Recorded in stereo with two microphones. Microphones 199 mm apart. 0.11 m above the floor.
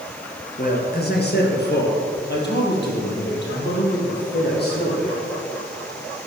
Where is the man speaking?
45° left (ahead or behind), 2 m; by 5.2 s 50° left (ahead or behind), 5.5 m.